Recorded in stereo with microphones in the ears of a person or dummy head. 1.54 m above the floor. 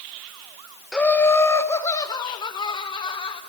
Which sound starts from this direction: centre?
Laughter, at 0.9 s.